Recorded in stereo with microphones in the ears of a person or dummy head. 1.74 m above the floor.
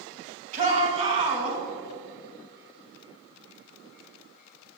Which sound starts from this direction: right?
A shout, at 0.5 s.